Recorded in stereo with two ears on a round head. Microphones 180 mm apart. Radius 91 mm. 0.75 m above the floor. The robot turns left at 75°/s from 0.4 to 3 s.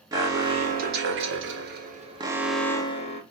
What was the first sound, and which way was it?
An alarm, 20° right.